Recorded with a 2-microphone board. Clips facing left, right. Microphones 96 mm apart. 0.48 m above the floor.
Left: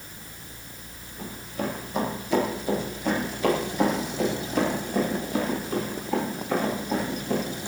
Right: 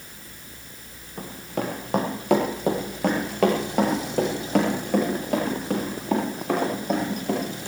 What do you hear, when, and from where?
1.2 s running footsteps: 85° right, 6.5 m; by 7.4 s 75° right (ahead or behind), 15.5 m